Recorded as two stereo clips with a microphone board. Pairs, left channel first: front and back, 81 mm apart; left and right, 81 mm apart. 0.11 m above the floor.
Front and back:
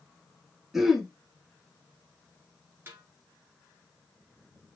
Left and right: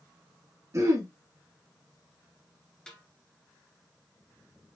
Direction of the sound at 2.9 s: 160° left.